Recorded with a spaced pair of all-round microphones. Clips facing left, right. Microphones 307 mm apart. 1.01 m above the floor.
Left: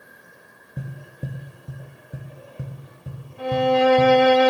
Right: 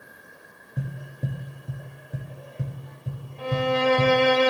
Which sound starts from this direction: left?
A violin, at 3.4 s.